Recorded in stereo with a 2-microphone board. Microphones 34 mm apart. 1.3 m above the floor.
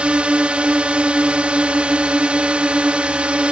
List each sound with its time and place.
0.0 s a drone: 35° right (ahead or behind)